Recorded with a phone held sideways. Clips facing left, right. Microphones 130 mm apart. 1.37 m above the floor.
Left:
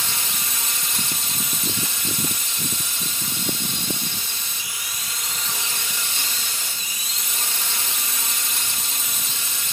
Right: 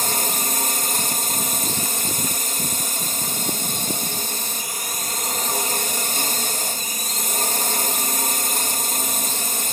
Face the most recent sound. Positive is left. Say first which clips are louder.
# right 7 dB
turn(degrees=-50)  # may be behind; listen again after turning